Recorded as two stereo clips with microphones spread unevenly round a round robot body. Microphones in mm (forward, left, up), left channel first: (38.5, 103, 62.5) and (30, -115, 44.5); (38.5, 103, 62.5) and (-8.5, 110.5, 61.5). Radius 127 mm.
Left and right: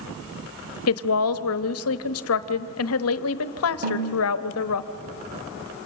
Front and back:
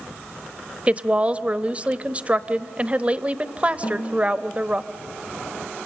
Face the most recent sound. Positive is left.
turn(degrees=-45)